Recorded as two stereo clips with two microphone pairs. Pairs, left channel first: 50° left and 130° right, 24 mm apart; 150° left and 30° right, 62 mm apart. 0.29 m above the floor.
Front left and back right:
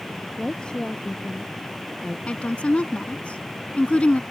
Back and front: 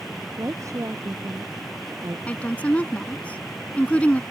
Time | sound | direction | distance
0.4 | a woman speaking | straight ahead | ?
2.3 | a woman speaking | 80° left | ?